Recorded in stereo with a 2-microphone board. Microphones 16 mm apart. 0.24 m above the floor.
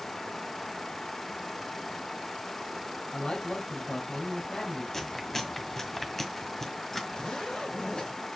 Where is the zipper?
60° left (ahead or behind), 3.5 m.